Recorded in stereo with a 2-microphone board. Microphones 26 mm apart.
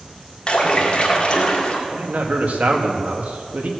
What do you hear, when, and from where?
0.5 s a splash: 35° left (ahead or behind), 2 m
1.9 s a man speaking: 65° right (ahead or behind), 1.7 m